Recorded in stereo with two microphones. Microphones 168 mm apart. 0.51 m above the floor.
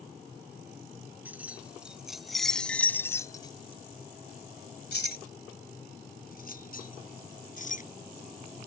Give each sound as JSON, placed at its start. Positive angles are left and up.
{"t": 1.2, "sound": "keys jangling", "side_deg": -10}